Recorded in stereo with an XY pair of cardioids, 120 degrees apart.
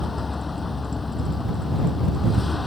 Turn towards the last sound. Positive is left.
turn(degrees=15)